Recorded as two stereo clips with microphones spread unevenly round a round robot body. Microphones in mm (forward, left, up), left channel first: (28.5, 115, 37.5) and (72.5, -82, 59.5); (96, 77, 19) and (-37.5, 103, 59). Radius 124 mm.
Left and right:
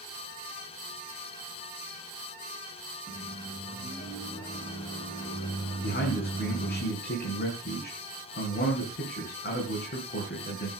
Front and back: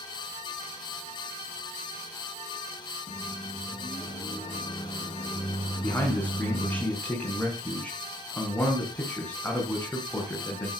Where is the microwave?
35° left, 4.5 m.